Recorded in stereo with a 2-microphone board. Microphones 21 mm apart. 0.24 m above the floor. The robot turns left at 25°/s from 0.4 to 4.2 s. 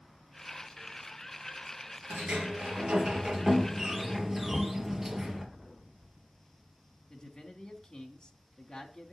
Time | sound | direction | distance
2.1 | a sliding door | 110° right | 2.5 m
4.5 | knocking | 5° left (ahead or behind) | 2.0 m
7.1 | a man speaking | 35° left (ahead or behind) | 2 m